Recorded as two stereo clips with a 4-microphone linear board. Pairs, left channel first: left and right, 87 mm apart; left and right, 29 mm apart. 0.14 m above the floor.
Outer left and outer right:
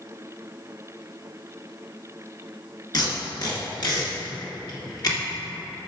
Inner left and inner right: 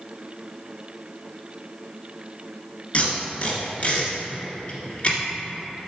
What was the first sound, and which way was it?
Tape being pulled, 50° left (ahead or behind).